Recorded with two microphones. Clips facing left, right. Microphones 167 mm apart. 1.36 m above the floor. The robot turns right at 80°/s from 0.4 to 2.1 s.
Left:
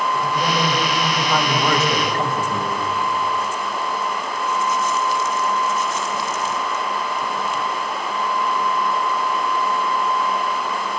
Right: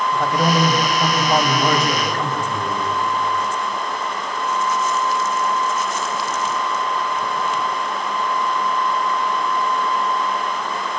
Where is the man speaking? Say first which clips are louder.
Right 3 dB; 110° right, 3.5 m; by 2.8 s 25° left, 3.5 m.